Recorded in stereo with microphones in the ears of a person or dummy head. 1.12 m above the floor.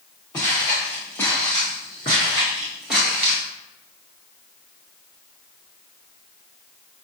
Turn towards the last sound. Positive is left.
turn(degrees=-5)  # may be behind; listen again after turning